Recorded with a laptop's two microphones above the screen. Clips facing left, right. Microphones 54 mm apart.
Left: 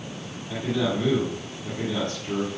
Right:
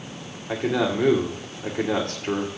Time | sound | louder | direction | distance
0.5 | a man speaking | right 3 dB | 70° right (ahead or behind) | 2.5 m